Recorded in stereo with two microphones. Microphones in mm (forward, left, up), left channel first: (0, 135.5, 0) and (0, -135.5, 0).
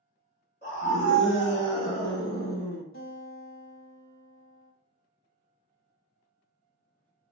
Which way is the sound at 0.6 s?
30° left (ahead or behind).